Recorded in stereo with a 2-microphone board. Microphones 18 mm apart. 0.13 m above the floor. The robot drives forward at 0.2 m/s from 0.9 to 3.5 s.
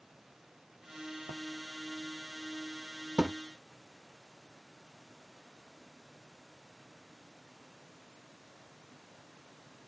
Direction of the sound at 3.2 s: 85° right.